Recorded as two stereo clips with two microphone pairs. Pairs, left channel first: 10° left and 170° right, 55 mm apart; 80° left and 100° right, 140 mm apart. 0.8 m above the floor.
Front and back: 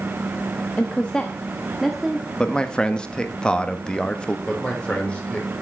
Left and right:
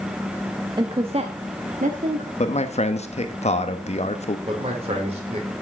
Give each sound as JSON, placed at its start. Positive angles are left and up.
{"t": 0.8, "sound": "a woman speaking", "azimuth_deg": -50, "distance_m": 0.8}
{"t": 2.4, "sound": "a man speaking", "azimuth_deg": 75, "distance_m": 1.1}
{"t": 4.5, "sound": "a man speaking", "azimuth_deg": -60, "distance_m": 3.5}